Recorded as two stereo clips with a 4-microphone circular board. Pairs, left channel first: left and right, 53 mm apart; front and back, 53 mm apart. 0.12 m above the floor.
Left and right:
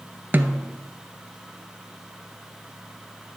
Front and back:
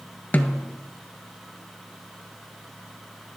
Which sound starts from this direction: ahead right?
A snare drum, at 0.3 s.